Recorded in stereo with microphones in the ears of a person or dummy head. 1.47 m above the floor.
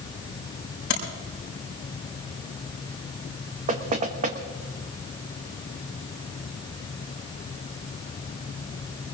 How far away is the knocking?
About 1.2 m.